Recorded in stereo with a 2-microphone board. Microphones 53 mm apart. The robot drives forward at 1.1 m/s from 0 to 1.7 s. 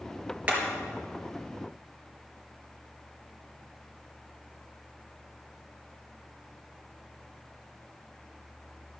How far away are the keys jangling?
No keys jangling in this recording.